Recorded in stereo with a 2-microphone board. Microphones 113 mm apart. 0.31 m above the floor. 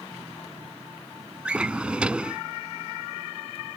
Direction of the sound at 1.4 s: 10° right (ahead or behind).